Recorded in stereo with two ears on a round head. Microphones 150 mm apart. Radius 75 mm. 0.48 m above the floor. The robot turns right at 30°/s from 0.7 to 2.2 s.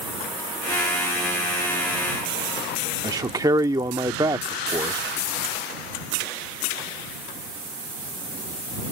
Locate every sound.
3.0 s a man speaking: 20° right (ahead or behind)